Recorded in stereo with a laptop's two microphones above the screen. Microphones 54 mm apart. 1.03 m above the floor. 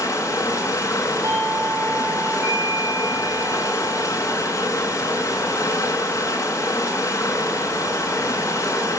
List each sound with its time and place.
0.0 s running water: 75° left (ahead or behind), 7.5 m
1.2 s a doorbell: 60° right (ahead or behind), 9 m